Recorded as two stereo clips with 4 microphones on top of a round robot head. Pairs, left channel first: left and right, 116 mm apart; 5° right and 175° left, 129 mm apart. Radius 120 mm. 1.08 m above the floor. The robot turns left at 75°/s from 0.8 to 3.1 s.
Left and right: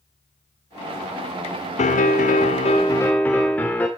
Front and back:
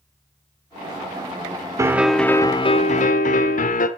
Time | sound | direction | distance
1.8 | a piano | 110° left | 1.5 m